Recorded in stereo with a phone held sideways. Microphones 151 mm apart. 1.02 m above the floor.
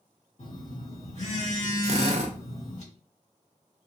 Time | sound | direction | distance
0.4 | a phone buzzing | 55° left (ahead or behind) | 1.7 m
1.8 | a drill | 50° right (ahead or behind) | 0.6 m